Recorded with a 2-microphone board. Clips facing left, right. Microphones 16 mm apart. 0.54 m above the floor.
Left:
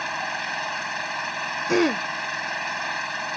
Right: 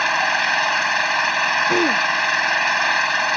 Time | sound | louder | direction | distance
0.0 | an engine running | right 10 dB | 35° right (ahead or behind) | ?
1.7 | throat clearing | right 4 dB | 20° left (ahead or behind) | ?